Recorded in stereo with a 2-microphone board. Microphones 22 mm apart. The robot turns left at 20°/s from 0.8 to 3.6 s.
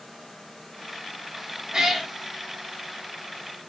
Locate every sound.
1.7 s a cat meowing: 20° right (ahead or behind), 1.2 m; by 2.1 s 15° right (ahead or behind), 1.2 m